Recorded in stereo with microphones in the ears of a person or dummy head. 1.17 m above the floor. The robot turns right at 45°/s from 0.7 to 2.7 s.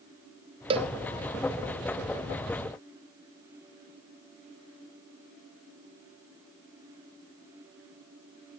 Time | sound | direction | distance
0.7 | a cowbell | 30° right (ahead or behind) | 0.8 m